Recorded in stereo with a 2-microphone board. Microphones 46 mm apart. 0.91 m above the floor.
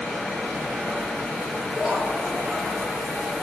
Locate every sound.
1.7 s laughter: 20° right (ahead or behind), 9 m; by 3.3 s 25° right (ahead or behind), 10 m